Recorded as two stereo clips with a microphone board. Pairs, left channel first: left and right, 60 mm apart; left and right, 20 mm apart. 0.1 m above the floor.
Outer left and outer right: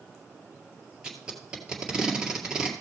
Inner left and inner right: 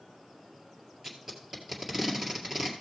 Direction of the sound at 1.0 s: 15° right (ahead or behind).